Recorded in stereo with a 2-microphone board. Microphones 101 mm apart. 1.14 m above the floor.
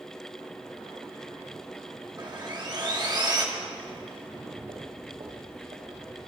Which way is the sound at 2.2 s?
45° right (ahead or behind).